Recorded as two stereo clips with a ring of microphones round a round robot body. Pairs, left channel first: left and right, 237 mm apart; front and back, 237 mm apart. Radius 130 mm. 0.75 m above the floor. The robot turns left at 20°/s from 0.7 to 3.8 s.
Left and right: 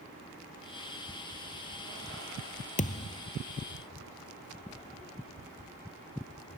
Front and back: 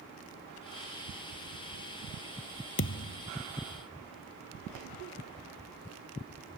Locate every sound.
2.8 s a thud: 35° left; by 3.3 s 25° left